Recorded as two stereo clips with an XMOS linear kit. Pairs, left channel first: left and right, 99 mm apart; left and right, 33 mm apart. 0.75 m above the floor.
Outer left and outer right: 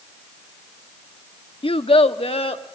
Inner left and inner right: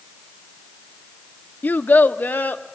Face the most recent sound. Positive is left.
turn(degrees=70)  # may be behind; listen again after turning